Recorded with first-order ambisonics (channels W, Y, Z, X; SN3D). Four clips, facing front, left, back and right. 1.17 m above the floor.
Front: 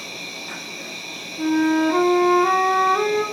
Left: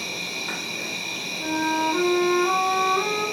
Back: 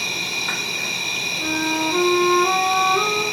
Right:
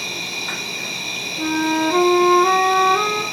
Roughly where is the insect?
Behind right.